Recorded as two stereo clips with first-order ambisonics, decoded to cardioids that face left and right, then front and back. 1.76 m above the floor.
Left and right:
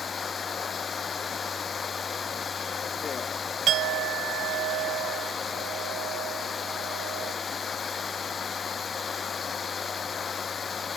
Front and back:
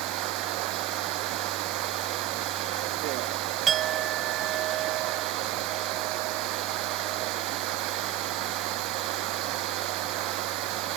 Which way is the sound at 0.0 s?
155° left.